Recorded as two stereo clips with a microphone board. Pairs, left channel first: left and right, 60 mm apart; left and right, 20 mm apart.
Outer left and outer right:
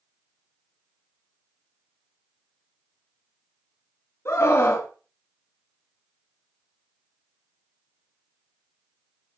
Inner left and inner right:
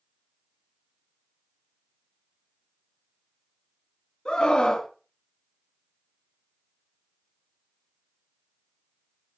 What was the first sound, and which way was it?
A scream, 45° left (ahead or behind).